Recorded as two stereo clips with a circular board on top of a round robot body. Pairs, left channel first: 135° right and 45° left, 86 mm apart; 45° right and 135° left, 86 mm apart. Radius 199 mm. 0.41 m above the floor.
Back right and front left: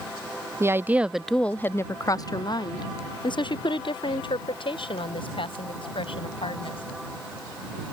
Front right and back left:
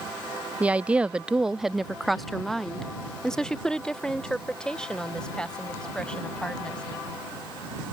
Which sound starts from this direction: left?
A woman speaking, at 0.6 s.